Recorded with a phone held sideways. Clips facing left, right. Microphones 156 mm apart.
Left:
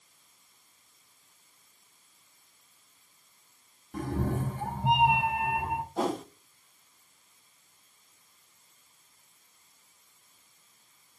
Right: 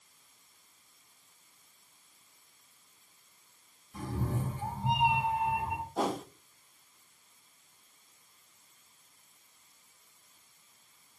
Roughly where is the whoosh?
Centre.